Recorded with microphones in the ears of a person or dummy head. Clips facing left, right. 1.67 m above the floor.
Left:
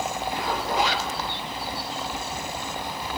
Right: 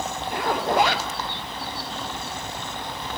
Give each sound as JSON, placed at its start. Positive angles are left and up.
{"t": 0.3, "sound": "a zipper", "side_deg": -50, "distance_m": 3.0}